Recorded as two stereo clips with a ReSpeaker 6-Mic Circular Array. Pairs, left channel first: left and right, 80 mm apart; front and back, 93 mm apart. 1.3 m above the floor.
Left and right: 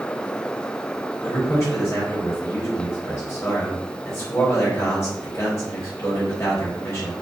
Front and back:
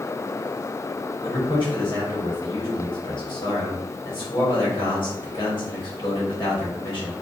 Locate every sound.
1.2 s a man speaking: 35° left, 1.2 m